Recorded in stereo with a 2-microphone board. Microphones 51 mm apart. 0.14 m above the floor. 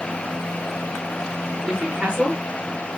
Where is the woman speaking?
10° right (ahead or behind), 2.0 m; by 2.9 s 30° right (ahead or behind), 1.9 m.